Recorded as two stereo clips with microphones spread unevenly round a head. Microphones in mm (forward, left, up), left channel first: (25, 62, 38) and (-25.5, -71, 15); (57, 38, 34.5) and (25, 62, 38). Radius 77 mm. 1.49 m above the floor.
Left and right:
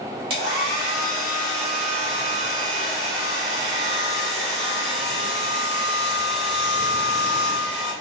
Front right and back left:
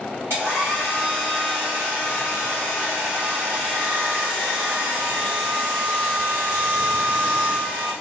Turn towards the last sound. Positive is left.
turn(degrees=-170)